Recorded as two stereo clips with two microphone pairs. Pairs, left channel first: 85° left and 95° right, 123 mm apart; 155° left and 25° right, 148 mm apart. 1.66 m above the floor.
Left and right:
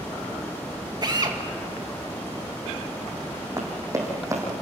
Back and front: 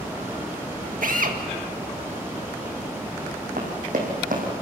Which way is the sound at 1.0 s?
40° right.